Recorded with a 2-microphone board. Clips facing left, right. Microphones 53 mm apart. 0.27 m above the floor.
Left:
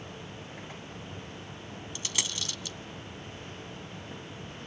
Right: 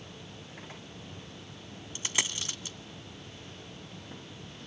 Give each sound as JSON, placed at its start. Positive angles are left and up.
{"t": 1.9, "sound": "a dropped coin", "side_deg": -30, "distance_m": 0.9}